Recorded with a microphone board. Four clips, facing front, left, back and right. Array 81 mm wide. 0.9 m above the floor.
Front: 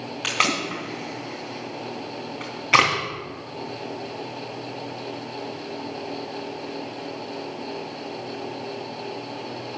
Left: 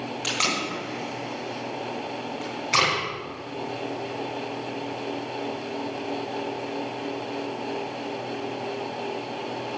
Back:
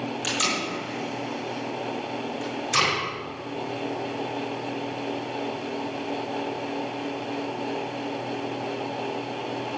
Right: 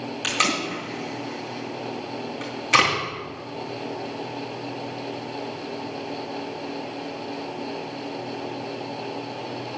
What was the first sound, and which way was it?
Tape being pulled, 10° right.